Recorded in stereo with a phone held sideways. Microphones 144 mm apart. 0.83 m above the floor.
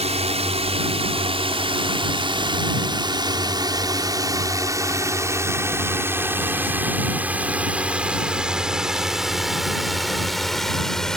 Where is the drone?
45° right (ahead or behind); by 11.2 s 5° left (ahead or behind).